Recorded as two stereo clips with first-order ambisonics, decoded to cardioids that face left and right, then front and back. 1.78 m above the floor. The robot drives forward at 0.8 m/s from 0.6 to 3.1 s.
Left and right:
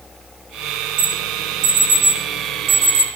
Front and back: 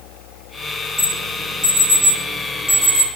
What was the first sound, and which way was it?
An alarm, 90° right.